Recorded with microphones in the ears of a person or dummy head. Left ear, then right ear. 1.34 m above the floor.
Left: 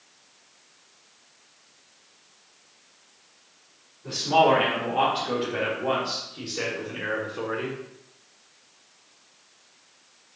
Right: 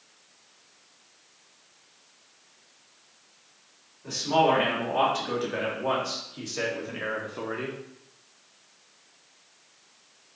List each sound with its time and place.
4.0 s a man speaking: 60° right (ahead or behind), 3 m; by 7.8 s 10° right (ahead or behind), 0.9 m